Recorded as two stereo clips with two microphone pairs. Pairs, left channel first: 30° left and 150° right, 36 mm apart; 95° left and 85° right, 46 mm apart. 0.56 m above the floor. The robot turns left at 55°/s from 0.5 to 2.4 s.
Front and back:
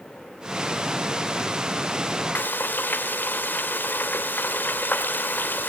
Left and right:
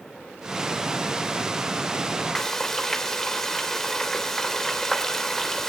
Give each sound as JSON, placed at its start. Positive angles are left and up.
{"t": 2.4, "sound": "frying", "azimuth_deg": 15, "distance_m": 2.5}